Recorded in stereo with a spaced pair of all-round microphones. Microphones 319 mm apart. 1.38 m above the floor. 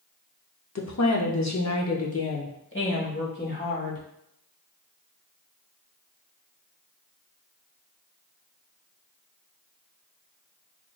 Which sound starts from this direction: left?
A woman speaking, at 0.8 s.